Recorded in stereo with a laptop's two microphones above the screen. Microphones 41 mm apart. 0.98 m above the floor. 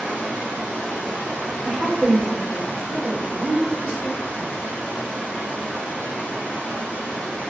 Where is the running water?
60° right (ahead or behind), 1.0 m.